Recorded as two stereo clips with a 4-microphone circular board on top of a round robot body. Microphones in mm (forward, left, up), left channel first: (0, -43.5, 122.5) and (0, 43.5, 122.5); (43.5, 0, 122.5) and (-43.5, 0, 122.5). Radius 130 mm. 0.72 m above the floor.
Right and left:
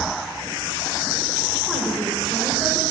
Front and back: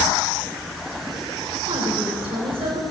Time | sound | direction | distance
1.7 | a woman speaking | straight behind | 3.5 m